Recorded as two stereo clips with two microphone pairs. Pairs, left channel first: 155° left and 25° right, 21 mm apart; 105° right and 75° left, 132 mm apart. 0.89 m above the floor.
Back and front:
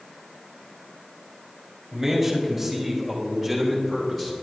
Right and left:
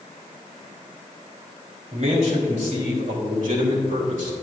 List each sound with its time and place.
1.9 s a man speaking: 50° left, 3.5 m; by 4.3 s 75° left, 3 m